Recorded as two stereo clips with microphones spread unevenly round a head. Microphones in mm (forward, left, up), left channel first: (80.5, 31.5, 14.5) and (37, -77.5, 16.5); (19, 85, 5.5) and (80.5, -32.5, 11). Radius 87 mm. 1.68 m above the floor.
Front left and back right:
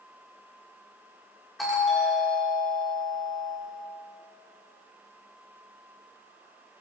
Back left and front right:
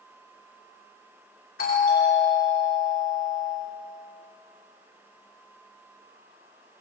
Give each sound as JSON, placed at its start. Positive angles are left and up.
{"t": 1.6, "sound": "a doorbell", "azimuth_deg": 160, "distance_m": 6.0}